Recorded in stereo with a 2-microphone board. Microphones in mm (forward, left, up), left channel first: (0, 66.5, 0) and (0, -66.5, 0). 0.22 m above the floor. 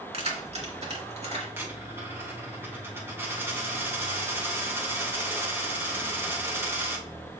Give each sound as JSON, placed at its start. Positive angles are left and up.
{"t": 0.1, "sound": "keys jangling", "side_deg": -50, "distance_m": 2.0}
{"t": 1.6, "sound": "a dropped coin", "side_deg": -20, "distance_m": 4.0}